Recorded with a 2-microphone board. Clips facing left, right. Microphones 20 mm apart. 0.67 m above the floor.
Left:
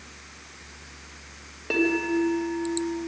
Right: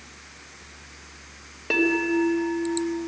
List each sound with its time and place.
1.7 s a bell: 10° right (ahead or behind), 3 m